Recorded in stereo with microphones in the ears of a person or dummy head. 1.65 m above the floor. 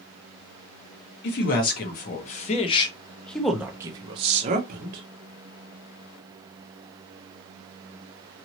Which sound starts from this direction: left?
A man speaking, at 1.2 s.